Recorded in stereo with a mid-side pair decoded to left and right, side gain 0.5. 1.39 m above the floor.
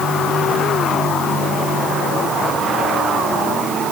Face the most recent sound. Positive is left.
No sound to turn to.